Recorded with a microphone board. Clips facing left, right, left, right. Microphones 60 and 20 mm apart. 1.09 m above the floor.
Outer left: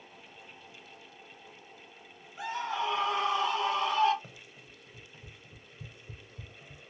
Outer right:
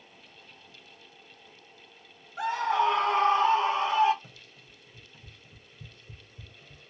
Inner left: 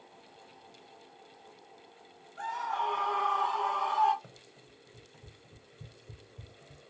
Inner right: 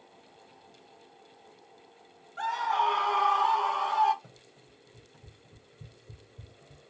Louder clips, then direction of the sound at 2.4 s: Outer right 7 dB, inner right 5 dB; 70° right (ahead or behind).